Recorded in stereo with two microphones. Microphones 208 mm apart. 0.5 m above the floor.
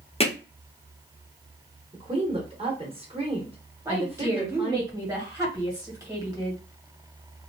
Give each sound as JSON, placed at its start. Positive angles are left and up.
{"t": 0.2, "sound": "hammering", "side_deg": 30, "distance_m": 0.9}
{"t": 1.9, "sound": "a woman speaking", "side_deg": -30, "distance_m": 1.1}
{"t": 3.9, "sound": "a woman speaking", "side_deg": -15, "distance_m": 2.0}